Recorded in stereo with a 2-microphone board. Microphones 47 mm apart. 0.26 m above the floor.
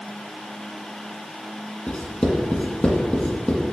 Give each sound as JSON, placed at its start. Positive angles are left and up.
{"t": 1.9, "sound": "writing", "side_deg": 20, "distance_m": 1.6}